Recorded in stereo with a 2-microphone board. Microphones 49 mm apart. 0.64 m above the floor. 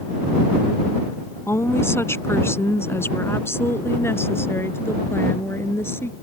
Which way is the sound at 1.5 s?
55° left (ahead or behind).